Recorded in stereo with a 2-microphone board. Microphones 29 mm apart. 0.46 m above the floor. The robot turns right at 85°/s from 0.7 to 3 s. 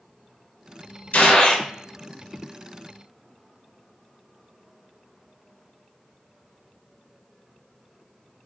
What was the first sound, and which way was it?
A gunshot, 110° left.